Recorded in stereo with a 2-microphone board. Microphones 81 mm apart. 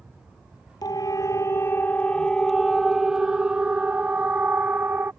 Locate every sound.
0.8 s a siren: 55° left (ahead or behind); by 5.1 s 25° right (ahead or behind)